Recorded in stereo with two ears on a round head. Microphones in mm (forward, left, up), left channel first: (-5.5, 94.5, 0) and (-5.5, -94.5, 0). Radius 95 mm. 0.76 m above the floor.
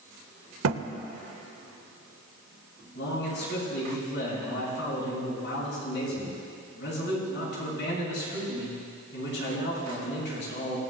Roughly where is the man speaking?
Left.